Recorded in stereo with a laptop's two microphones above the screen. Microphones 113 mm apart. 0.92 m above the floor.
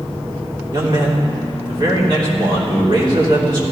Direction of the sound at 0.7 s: 45° right (ahead or behind).